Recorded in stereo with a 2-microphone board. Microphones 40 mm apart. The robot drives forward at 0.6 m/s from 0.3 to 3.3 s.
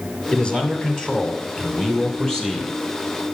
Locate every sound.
0.3 s a man speaking: 20° left (ahead or behind), 1.8 m; by 2.8 s 10° left (ahead or behind), 3 m